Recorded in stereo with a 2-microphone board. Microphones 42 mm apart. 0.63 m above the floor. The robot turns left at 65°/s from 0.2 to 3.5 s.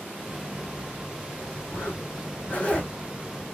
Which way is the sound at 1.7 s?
60° left (ahead or behind).